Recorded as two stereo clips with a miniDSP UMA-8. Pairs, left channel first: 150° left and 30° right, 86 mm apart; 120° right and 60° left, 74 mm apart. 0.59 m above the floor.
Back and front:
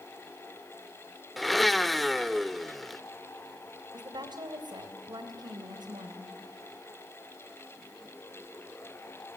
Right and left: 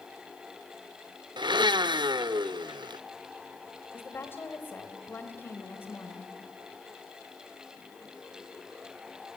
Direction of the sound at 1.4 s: 60° left.